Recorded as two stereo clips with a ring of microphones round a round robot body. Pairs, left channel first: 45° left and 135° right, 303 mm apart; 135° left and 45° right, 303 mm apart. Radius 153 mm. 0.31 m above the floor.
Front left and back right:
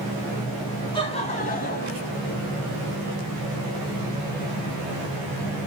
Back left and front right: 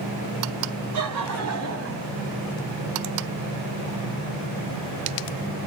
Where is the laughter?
30° right, 3 m; by 2.1 s straight ahead, 2.5 m.